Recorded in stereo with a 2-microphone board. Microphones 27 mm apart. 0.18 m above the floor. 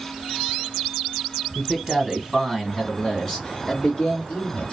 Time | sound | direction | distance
1.6 | a man speaking | 15° right (ahead or behind) | 1.4 m